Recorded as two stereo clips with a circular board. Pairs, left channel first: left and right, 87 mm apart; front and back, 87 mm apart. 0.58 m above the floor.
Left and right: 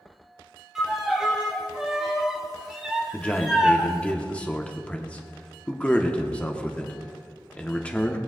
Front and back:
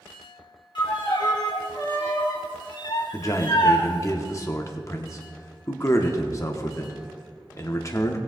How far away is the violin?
About 1.6 m.